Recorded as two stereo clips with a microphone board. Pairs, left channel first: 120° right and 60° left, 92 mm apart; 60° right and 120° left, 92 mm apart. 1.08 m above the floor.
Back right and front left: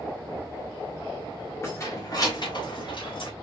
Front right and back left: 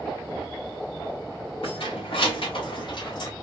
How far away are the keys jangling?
About 1.9 m.